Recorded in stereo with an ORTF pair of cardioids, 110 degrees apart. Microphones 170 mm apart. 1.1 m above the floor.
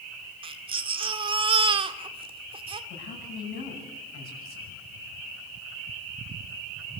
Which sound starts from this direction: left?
A man speaking, at 2.9 s.